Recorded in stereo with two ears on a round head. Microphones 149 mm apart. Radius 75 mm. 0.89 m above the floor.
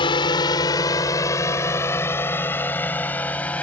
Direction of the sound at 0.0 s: 30° left (ahead or behind).